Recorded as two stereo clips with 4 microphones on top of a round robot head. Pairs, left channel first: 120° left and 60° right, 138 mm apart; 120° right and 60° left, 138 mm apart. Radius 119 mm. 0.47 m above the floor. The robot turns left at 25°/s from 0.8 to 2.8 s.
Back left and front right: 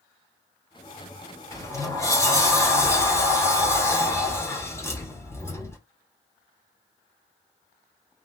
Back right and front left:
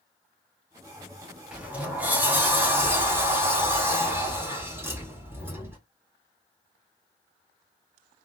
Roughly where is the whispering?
No whispering in this recording.